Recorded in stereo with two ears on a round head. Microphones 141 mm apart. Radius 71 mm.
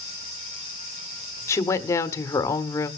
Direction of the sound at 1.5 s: 20° left (ahead or behind).